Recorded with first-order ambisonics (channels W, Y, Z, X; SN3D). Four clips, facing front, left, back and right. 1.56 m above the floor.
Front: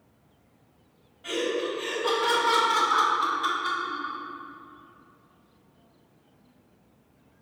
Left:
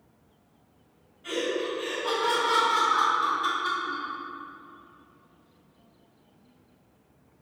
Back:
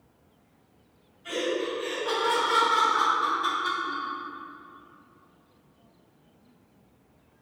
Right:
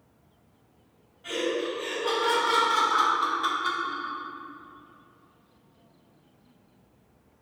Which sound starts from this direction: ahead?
Laughter, at 1.2 s.